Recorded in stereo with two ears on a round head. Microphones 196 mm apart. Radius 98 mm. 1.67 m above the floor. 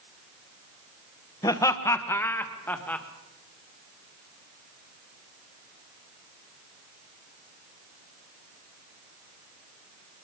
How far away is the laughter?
About 1.4 m.